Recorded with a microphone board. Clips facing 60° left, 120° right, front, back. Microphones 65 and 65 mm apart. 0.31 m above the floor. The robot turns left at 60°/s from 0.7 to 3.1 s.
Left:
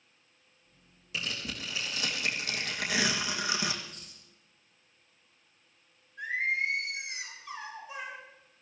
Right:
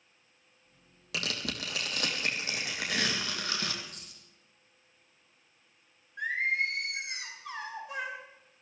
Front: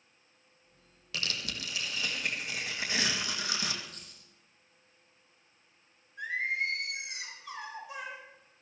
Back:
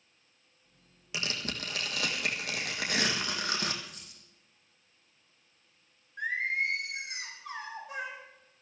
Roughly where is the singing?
Behind right.